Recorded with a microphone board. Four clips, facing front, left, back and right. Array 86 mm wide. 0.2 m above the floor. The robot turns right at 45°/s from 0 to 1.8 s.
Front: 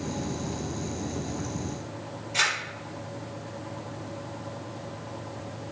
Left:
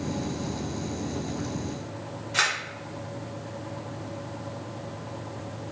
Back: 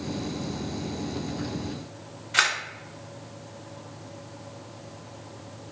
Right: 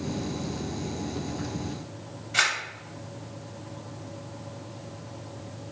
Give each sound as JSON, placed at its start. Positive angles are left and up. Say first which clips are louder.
{"t": 2.3, "sound": "a camera shutter", "louder": "even, back 4 dB", "azimuth_deg": 180, "distance_m": 2.0}